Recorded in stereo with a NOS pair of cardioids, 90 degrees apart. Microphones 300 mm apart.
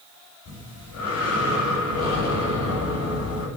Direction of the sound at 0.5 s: 55° left.